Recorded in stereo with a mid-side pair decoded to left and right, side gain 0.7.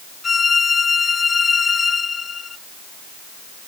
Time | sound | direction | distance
0.2 | a violin | 20° left | ?